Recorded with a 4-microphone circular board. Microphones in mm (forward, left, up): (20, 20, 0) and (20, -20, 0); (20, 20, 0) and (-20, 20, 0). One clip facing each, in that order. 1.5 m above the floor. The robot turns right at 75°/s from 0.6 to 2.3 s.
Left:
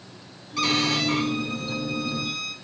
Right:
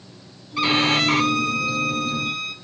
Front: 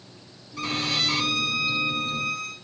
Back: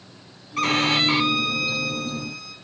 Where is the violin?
160° right, 0.7 m; by 2.5 s 30° right, 0.7 m.